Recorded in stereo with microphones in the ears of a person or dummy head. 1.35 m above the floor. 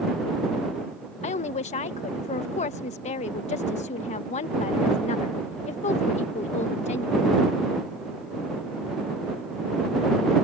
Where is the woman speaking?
30° left (ahead or behind).